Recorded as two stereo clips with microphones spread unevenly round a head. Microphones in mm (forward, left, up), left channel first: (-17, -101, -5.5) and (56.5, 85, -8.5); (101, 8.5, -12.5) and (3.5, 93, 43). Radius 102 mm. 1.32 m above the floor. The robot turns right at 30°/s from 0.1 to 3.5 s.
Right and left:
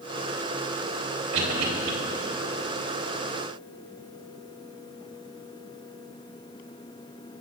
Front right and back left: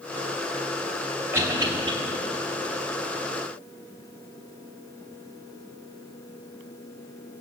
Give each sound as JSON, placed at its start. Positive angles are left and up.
{"t": 1.3, "sound": "a cough", "azimuth_deg": 65, "distance_m": 3.5}